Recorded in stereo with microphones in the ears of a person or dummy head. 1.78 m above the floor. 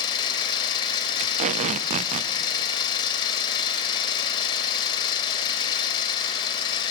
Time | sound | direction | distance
0.0 | an engine running | 30° left (ahead or behind) | 3 m
1.2 | tape being pulled | 45° right (ahead or behind) | 0.5 m